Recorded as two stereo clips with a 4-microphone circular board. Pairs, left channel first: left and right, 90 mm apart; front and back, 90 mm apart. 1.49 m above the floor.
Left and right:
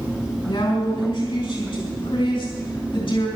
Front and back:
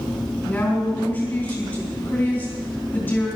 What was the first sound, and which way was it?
A woman speaking, 60° left.